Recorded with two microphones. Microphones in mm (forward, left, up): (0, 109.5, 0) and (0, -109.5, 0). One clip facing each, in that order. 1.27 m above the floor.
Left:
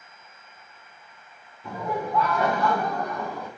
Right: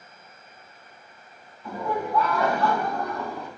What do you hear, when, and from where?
1.6 s laughter: 25° left (ahead or behind), 4 m; by 3.5 s 15° left (ahead or behind), 5.5 m